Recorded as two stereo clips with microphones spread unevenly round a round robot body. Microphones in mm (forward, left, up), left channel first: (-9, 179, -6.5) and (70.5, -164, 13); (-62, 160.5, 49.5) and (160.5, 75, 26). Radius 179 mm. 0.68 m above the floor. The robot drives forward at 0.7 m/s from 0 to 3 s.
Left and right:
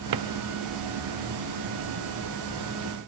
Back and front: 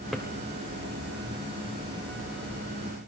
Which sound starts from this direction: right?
A drawer, at 0.1 s.